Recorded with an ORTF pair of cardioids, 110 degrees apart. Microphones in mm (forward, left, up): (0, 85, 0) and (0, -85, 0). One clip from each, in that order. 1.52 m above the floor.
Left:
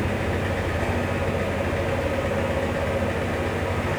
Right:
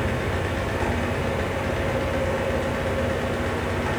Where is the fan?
30° right, 0.8 m.